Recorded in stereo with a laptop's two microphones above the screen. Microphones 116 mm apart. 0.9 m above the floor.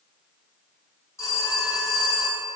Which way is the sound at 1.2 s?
25° left (ahead or behind).